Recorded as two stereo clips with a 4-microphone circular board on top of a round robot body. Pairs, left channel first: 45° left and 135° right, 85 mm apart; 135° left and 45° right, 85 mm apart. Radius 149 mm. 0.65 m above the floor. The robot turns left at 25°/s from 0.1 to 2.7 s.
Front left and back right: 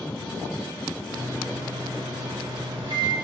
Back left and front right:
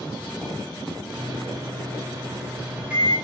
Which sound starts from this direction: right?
A microwave, at 1.1 s.